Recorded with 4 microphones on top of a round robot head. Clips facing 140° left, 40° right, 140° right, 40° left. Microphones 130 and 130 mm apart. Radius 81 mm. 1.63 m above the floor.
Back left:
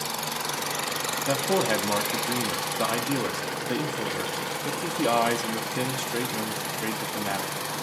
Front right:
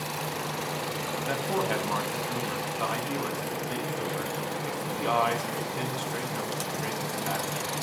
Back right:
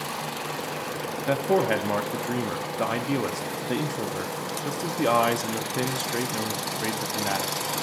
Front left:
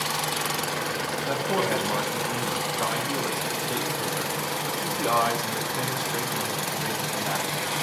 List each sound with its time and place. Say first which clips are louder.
1.3 s a man speaking: back left 5 dB, back right 4 dB; 175° right, 0.5 m